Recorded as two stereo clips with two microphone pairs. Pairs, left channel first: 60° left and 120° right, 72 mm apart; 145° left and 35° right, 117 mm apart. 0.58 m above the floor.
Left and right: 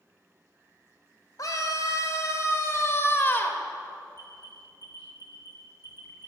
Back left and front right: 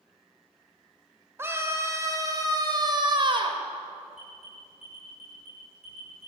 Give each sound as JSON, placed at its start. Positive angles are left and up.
{"t": 1.4, "sound": "a scream", "azimuth_deg": 35, "distance_m": 3.0}
{"t": 4.2, "sound": "an alarm", "azimuth_deg": 115, "distance_m": 7.0}